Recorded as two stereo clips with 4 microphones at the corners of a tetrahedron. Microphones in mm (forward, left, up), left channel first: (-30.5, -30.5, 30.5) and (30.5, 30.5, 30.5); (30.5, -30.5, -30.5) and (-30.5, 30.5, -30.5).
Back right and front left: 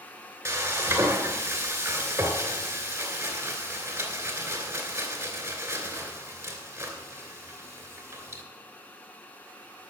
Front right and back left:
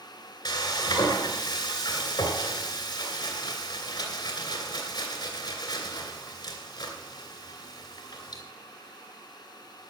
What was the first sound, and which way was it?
Frying, 10° right.